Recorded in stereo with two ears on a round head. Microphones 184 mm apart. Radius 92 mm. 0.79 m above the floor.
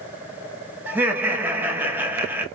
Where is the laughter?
10° right (ahead or behind), 0.9 m.